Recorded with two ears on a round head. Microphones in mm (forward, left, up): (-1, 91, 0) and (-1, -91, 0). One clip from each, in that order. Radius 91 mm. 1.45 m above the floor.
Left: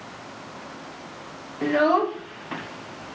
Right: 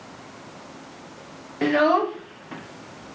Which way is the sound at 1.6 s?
30° right (ahead or behind).